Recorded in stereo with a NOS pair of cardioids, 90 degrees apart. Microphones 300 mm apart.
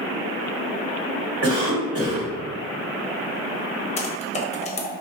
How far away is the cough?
About 1.3 m.